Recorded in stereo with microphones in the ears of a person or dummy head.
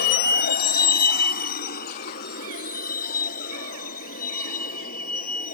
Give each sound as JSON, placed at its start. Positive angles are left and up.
{"t": 0.0, "sound": "a vehicle", "side_deg": 65}